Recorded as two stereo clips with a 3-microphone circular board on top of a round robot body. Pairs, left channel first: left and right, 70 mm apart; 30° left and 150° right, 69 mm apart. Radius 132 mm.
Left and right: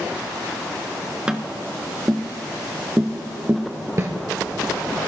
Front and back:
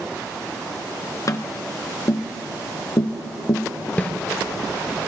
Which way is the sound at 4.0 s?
35° right.